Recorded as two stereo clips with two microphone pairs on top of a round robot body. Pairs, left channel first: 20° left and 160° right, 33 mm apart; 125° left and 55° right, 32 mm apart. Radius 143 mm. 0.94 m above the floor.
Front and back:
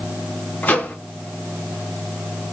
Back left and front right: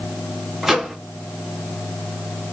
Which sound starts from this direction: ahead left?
A microwave, at 0.6 s.